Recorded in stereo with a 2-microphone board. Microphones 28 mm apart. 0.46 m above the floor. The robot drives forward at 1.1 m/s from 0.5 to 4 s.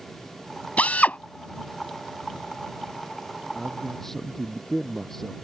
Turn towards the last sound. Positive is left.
turn(degrees=10)  # may be behind; listen again after turning